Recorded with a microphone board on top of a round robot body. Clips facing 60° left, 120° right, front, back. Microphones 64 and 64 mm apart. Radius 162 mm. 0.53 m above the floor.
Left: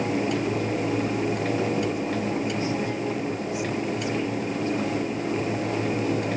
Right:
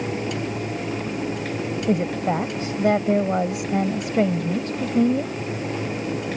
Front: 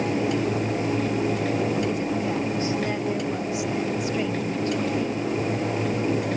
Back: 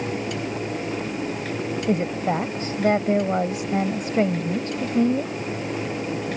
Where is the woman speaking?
140° right.